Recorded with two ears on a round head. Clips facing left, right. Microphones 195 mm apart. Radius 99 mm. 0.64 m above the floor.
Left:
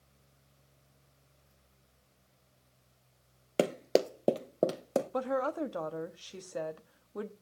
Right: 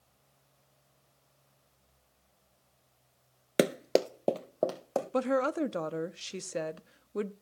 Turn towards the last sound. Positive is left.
turn(degrees=-30)  # may be behind; listen again after turning